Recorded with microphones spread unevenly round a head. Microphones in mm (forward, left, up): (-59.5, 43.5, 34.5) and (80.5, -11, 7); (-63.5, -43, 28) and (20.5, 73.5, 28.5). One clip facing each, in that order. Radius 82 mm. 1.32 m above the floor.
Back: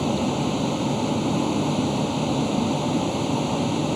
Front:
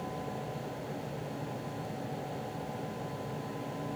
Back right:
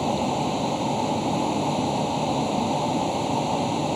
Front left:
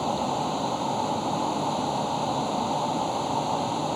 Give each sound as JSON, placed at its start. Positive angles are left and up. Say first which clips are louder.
{"t": 0.0, "sound": "a vehicle", "louder": "back 15 dB, back right 3 dB", "azimuth_deg": 160}